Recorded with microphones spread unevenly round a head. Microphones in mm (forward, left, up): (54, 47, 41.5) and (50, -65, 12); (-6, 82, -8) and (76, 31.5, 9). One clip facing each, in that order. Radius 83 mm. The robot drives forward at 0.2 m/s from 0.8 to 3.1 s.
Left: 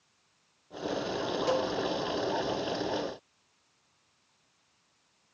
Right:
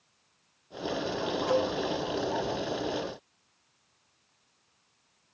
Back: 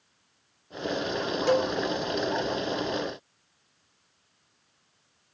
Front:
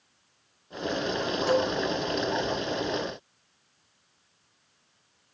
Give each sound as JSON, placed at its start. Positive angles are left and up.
{"t": 1.5, "sound": "a cowbell", "azimuth_deg": 110, "distance_m": 0.5}